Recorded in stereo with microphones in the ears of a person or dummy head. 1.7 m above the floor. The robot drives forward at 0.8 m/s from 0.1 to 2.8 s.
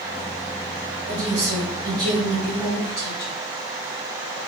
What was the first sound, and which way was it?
A woman speaking, 40° right (ahead or behind).